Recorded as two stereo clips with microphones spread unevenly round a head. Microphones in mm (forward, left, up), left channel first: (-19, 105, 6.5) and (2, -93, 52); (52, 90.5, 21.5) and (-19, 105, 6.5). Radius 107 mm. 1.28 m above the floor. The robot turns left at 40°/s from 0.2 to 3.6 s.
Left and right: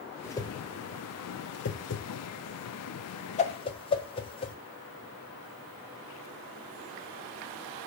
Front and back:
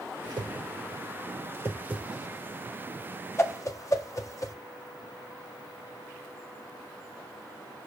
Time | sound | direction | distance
0.2 | a whoosh | 170° left | 1.4 m